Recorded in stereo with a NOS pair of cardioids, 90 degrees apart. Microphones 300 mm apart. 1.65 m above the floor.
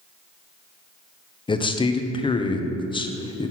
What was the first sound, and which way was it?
A man speaking, 15° left.